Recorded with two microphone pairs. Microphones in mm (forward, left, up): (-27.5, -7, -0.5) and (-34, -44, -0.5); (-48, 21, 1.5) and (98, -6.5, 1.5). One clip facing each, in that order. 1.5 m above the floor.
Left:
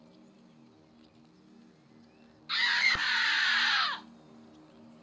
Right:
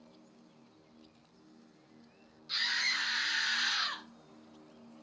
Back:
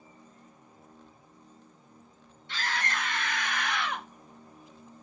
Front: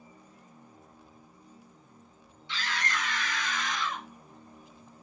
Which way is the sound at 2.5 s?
130° left.